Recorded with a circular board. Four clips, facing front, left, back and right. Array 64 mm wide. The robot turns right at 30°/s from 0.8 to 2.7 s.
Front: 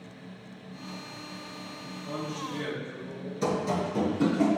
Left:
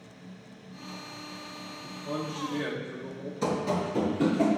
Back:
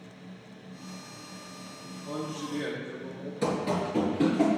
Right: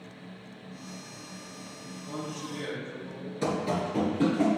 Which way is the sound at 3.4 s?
145° right.